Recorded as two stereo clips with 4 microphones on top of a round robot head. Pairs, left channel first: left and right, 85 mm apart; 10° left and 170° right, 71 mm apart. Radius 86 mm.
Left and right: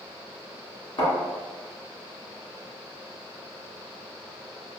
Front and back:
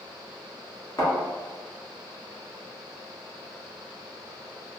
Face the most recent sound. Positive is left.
turn(degrees=55)